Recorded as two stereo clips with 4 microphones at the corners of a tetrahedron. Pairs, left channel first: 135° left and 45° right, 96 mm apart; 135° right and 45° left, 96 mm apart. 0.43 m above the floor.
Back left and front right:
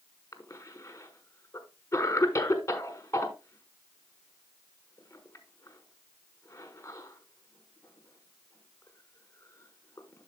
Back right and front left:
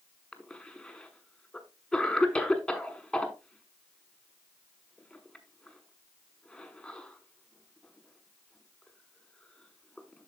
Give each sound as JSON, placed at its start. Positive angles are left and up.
{"t": 0.3, "sound": "a cough", "azimuth_deg": 150, "distance_m": 1.0}